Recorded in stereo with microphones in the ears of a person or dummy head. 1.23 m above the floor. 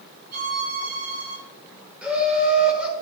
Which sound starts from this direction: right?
A violin, at 0.3 s.